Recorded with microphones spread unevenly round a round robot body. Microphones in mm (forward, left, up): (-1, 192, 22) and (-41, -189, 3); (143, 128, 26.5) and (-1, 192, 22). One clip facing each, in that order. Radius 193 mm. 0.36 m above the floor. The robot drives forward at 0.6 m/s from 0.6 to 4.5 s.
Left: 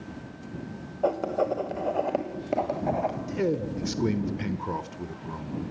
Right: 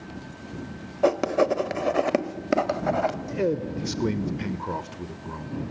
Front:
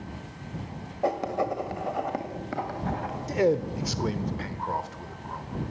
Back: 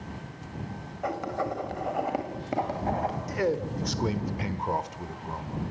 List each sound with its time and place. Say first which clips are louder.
1.0 s writing: right 5 dB, front 4 dB; 85° right, 1.2 m; by 3.2 s 140° right, 1.7 m
3.3 s a man speaking: even, front 7 dB; straight ahead, 0.9 m; by 5.6 s straight behind, 0.9 m